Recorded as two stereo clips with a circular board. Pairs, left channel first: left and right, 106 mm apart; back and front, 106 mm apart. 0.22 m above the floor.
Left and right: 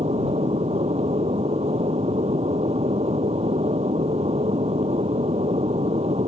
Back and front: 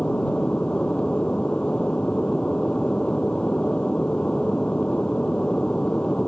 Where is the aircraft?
100° right.